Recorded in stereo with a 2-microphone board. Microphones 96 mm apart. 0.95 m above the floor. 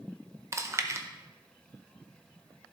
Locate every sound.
0.5 s chewing: 30° right (ahead or behind), 0.8 m